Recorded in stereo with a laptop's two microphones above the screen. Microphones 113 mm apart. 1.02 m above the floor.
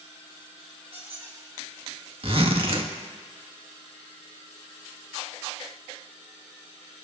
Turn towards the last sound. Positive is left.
turn(degrees=-55)  # may be behind; listen again after turning